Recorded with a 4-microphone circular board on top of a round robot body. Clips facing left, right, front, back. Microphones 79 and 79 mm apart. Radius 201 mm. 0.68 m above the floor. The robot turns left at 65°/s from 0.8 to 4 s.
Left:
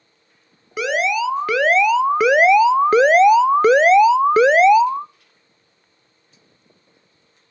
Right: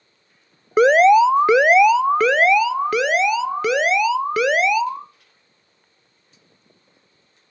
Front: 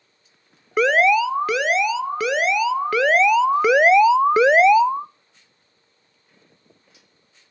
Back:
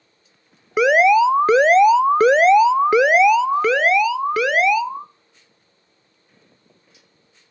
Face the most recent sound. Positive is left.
turn(degrees=55)